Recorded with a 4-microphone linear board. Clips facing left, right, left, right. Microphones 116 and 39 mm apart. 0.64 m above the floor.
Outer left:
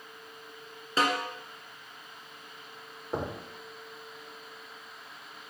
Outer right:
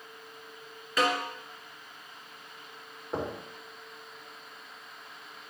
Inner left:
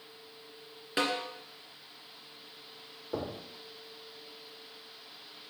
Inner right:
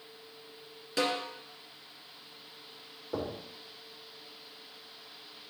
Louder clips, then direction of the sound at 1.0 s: Even, even; 30° left (ahead or behind).